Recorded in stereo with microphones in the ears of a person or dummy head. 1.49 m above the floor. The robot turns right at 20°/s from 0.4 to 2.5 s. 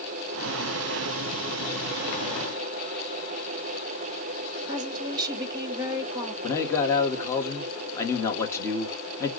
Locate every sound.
4.7 s a woman speaking: 20° right (ahead or behind), 1.4 m
6.4 s a man speaking: 20° left (ahead or behind), 1.7 m